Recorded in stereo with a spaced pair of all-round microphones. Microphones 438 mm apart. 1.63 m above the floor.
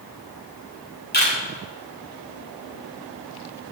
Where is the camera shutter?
20° left (ahead or behind), 5 m.